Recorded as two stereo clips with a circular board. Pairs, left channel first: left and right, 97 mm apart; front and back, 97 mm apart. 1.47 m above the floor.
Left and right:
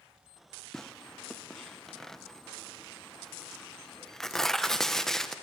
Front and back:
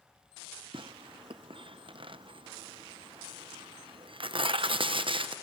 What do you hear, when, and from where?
0.7 s tearing paper: 175° left, 0.6 m